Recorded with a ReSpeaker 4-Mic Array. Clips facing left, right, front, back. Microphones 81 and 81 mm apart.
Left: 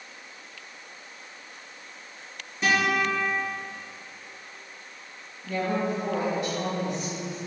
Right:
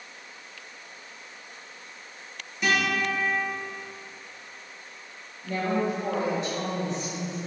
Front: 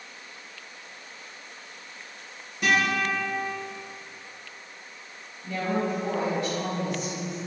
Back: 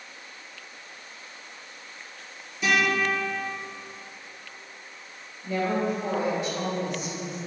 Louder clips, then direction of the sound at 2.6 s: Left 2 dB, even; 35° left.